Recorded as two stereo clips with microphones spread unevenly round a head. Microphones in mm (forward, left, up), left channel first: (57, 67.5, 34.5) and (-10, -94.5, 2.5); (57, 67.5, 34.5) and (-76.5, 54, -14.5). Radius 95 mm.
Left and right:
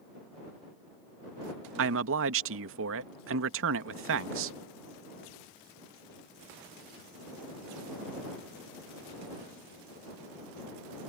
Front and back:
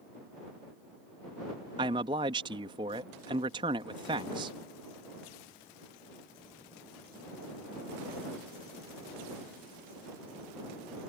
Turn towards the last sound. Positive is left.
turn(degrees=-105)